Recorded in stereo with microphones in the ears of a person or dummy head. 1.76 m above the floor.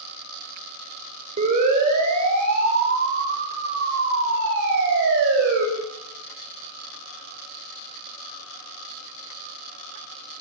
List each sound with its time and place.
1.4 s a siren: 40° right (ahead or behind), 6.5 m; by 5.7 s 65° right (ahead or behind), 8 m